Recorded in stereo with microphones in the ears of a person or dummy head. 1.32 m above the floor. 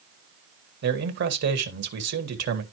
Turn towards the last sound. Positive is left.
turn(degrees=-60)  # may be behind; listen again after turning